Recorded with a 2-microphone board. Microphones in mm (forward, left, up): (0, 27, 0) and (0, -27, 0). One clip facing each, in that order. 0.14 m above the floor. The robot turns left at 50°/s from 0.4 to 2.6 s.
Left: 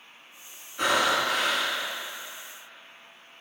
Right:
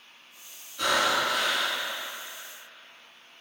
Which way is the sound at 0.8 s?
30° left (ahead or behind).